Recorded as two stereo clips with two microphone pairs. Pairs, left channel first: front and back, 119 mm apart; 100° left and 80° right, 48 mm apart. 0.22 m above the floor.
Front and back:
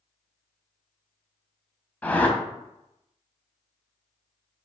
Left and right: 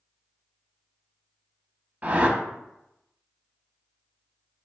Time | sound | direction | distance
2.0 | a whoosh | 60° right | 0.6 m